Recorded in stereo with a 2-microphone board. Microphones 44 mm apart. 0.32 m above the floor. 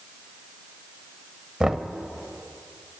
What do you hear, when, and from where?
1.6 s knocking: 10° right (ahead or behind), 0.8 m